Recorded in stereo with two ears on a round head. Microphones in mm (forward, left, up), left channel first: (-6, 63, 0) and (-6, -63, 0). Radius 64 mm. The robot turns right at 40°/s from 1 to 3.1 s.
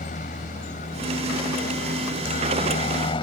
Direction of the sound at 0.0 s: 60° left.